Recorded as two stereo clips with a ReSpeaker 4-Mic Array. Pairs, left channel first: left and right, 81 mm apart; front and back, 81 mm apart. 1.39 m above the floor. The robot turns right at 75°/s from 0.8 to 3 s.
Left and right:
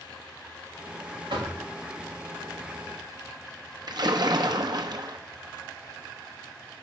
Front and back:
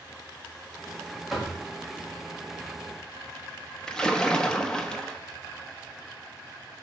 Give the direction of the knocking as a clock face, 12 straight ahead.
3 o'clock.